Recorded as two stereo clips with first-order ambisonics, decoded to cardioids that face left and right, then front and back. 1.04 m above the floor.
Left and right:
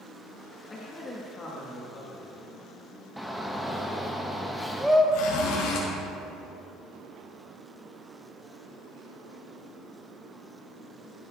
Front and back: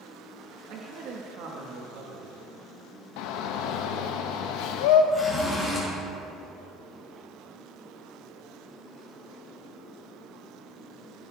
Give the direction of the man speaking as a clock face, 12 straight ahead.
7 o'clock.